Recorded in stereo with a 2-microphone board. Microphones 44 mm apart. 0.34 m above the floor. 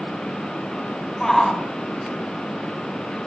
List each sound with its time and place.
1.2 s a shout: 10° left (ahead or behind), 2.5 m